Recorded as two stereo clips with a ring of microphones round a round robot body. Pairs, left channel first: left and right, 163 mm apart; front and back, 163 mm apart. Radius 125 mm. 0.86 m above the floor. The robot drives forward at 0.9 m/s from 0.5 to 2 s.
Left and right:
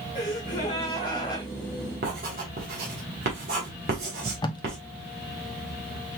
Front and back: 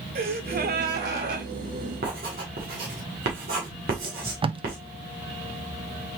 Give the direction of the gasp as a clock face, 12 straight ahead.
7 o'clock.